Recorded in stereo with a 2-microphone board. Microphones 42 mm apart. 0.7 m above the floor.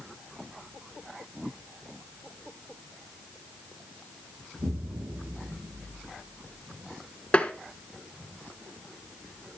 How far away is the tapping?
About 1.7 m.